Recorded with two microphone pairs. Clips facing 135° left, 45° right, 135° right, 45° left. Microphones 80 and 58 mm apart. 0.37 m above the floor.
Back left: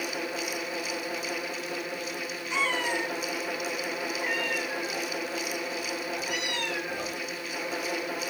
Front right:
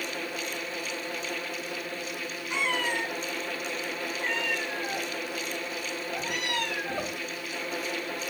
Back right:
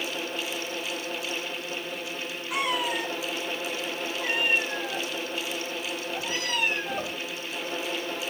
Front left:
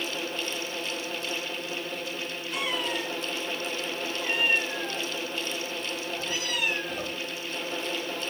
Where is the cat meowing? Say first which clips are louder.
Back left 1 dB, back right 3 dB; 120° right, 4 m; by 7.2 s 80° right, 2.5 m.